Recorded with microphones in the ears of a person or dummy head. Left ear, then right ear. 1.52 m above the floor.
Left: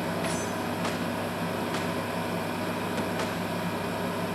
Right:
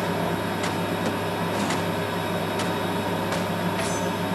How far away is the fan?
About 0.9 m.